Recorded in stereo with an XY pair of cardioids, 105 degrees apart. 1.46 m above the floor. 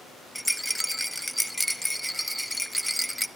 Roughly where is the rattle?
Ahead.